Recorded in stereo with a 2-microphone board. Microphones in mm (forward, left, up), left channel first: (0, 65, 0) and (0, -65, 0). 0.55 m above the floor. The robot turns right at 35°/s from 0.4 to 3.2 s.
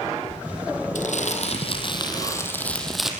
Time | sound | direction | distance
0.9 | crumpling | 110° left | 4.5 m